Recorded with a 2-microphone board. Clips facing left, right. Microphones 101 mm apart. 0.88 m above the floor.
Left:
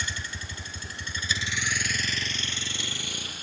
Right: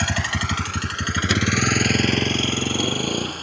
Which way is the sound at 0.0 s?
70° right (ahead or behind).